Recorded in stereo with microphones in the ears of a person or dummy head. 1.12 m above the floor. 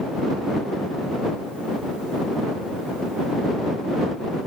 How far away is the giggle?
No giggle in this recording.